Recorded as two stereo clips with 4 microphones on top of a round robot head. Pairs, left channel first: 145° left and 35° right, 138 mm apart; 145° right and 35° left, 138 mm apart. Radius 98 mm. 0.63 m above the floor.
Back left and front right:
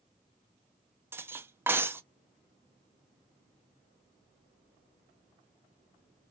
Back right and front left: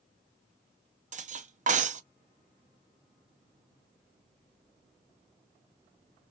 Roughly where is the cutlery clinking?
Ahead left.